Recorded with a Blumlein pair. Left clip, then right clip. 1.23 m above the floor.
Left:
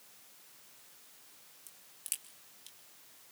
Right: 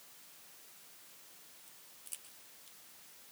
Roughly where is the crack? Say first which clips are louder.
Left 8 dB; ahead left.